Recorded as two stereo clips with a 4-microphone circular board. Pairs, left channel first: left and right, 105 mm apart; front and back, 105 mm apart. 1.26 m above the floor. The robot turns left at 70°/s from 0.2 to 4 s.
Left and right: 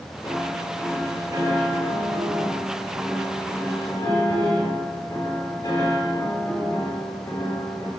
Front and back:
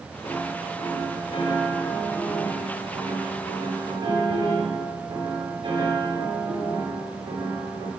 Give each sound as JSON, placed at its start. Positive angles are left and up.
{"t": 0.2, "sound": "a piano", "azimuth_deg": 45, "distance_m": 3.5}